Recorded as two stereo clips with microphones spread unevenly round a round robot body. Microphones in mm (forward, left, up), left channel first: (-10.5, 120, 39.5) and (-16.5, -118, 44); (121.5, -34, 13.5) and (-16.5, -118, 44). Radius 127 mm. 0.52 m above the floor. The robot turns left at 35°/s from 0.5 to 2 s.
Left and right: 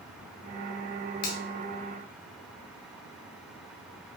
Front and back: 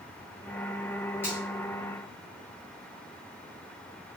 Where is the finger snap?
105° left, 1.0 m; by 1.4 s 100° left, 1.0 m.